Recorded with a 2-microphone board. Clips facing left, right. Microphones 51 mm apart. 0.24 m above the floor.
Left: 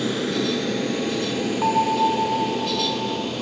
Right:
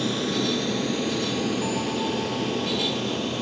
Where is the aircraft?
15° left (ahead or behind); by 3.4 s 10° left (ahead or behind).